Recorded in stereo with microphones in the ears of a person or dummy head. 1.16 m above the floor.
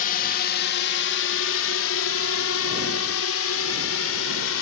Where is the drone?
45° left (ahead or behind); by 4.6 s 75° left (ahead or behind).